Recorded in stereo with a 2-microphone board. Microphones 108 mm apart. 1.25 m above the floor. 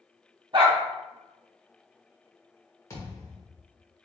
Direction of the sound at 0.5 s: 50° right (ahead or behind).